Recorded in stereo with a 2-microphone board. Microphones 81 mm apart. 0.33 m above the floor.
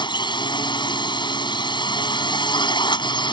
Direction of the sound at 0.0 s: 60° left (ahead or behind).